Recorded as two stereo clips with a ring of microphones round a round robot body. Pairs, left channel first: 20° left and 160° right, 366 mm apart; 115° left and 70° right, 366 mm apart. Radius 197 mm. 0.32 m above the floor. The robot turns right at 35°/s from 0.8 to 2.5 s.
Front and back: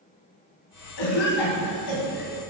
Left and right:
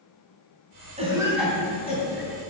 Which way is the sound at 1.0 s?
5° left.